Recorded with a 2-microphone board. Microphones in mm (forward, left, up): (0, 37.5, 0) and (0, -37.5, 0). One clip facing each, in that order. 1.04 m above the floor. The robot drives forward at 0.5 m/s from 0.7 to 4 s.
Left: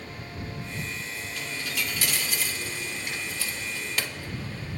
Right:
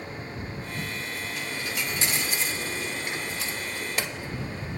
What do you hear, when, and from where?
1.4 s a dropped coin: 20° right (ahead or behind), 1.0 m